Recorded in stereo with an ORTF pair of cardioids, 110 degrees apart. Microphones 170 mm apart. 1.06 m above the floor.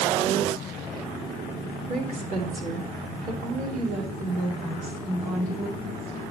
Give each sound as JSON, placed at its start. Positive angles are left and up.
{"t": 1.9, "sound": "a woman speaking", "azimuth_deg": -45, "distance_m": 3.0}